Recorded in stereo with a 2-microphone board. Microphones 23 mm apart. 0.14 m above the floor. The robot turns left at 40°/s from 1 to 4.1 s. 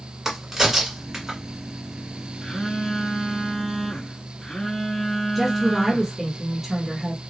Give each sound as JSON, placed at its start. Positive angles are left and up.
{"t": 0.2, "sound": "a crack", "side_deg": -15, "distance_m": 1.5}
{"t": 2.4, "sound": "a phone buzzing", "azimuth_deg": 125, "distance_m": 1.3}
{"t": 5.3, "sound": "a woman speaking", "side_deg": 0, "distance_m": 1.2}